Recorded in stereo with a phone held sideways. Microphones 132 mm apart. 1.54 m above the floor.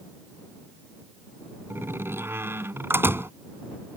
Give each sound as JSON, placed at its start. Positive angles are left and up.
{"t": 1.7, "sound": "a door slam", "side_deg": -15}